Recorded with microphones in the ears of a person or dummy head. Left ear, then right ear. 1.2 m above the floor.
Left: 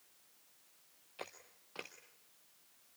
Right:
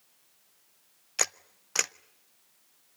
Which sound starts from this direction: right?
A camera shutter, at 1.2 s.